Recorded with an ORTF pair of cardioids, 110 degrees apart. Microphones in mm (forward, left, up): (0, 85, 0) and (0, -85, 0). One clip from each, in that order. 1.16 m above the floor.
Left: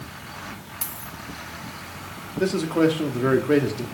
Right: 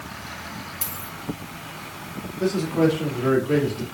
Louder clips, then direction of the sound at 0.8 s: Right 2 dB; 5° left.